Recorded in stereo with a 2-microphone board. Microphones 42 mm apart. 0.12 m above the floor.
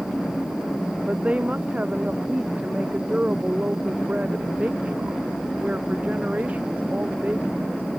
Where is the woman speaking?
30° right (ahead or behind); by 7.9 s 35° right (ahead or behind).